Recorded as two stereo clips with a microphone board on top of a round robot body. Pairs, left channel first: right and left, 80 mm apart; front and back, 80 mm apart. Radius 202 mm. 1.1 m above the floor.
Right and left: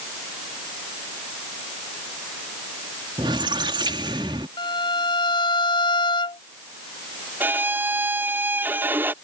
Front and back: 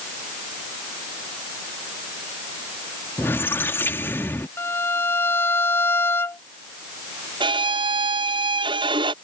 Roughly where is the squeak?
Ahead left.